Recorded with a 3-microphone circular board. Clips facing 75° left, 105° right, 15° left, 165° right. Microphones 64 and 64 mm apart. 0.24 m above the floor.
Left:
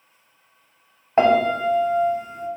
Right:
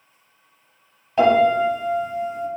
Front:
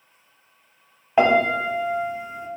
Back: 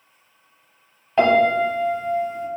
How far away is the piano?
About 0.9 m.